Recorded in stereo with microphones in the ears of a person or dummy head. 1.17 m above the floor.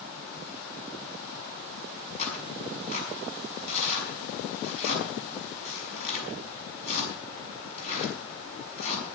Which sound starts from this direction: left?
Tearing paper, at 2.2 s.